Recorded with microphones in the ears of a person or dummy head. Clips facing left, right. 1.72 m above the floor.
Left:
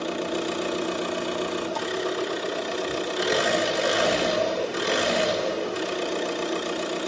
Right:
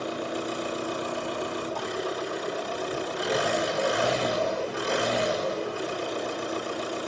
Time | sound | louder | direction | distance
0.0 | an engine running | left 3 dB | 45° left (ahead or behind) | 1.7 m